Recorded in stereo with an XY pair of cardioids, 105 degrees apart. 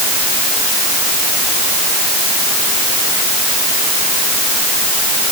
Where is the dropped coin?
I don't hear a dropped coin.